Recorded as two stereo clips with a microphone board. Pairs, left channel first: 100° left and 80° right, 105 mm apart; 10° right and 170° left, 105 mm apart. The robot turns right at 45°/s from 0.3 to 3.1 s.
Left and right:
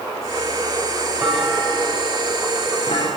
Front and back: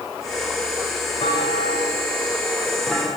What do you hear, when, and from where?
1.2 s a clunk: 10° right, 9.5 m; by 3.1 s 75° left, 9.5 m